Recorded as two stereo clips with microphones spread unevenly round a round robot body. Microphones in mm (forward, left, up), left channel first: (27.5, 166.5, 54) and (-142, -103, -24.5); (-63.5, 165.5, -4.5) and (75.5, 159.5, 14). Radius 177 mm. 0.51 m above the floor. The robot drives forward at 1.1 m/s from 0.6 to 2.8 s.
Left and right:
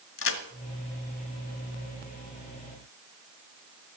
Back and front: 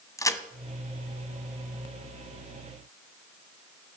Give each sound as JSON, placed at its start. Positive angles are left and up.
{"t": 0.2, "sound": "a crack", "azimuth_deg": 110, "distance_m": 1.7}